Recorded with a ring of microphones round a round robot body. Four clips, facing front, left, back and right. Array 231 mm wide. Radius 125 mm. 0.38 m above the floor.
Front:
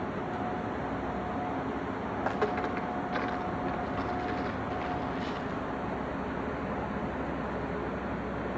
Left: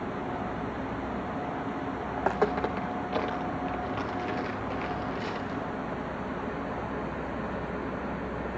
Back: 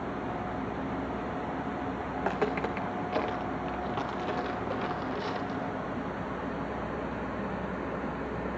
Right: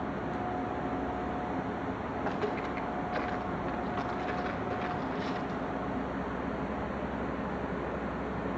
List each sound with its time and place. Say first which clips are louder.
2.2 s footsteps: left 8 dB, even; 105° left, 2 m; by 5.7 s 155° left, 5.5 m